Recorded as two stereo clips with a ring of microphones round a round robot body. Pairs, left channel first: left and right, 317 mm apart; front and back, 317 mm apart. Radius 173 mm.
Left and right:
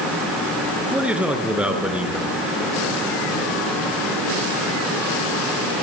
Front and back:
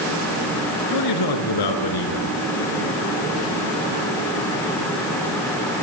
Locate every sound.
0.9 s a man speaking: 5° right, 4.5 m